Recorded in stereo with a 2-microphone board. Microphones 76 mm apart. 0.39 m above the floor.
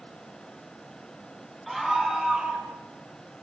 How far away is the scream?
About 3.5 m.